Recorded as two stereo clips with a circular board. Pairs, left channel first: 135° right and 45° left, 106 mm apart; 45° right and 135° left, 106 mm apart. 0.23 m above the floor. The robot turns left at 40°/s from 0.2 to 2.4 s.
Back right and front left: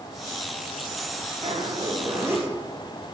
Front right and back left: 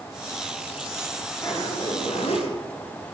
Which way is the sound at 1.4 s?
10° left.